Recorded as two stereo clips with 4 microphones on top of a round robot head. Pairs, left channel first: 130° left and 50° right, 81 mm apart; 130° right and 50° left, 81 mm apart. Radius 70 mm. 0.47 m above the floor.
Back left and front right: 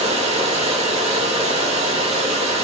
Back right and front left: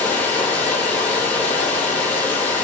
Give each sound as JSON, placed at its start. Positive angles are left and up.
{"t": 0.0, "sound": "running water", "azimuth_deg": -55, "distance_m": 1.6}